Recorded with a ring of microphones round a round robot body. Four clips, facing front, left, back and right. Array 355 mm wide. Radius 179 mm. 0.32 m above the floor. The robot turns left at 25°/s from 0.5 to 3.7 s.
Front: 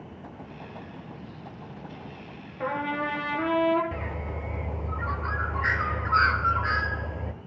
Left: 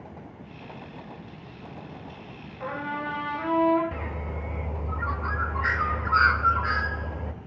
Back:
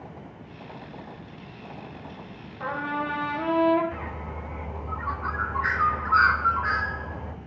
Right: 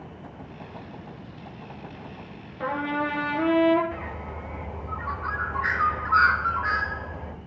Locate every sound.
2.6 s a trumpet: 40° right, 2.5 m; by 3.8 s 65° right, 2.5 m
3.9 s a bird: 45° left, 0.8 m